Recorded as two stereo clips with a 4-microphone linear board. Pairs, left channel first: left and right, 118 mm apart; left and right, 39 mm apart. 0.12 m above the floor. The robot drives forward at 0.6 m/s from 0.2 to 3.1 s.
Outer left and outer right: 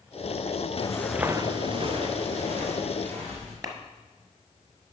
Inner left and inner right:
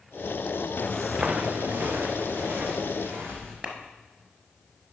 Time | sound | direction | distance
0.8 | footsteps | 45° left (ahead or behind) | 0.7 m
3.6 | a clap | 35° right (ahead or behind) | 1.2 m